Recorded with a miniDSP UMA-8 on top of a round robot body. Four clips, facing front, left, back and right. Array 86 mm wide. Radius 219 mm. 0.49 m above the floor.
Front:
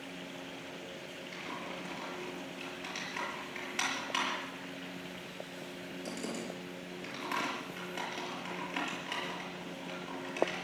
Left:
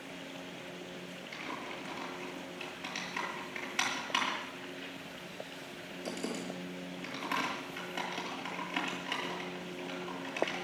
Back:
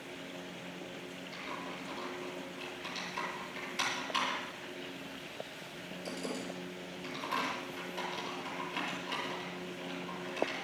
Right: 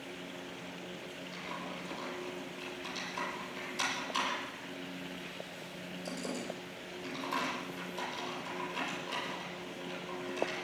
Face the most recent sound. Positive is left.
turn(degrees=60)